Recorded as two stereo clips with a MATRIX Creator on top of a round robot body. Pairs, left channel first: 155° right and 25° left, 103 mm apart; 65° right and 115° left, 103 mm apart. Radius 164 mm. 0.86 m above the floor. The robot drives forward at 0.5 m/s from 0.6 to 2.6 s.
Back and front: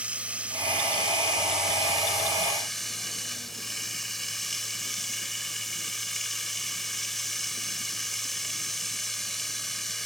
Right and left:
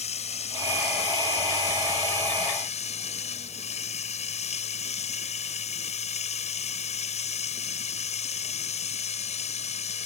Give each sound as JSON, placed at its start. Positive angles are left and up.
{"t": 0.0, "sound": "running water", "azimuth_deg": -55}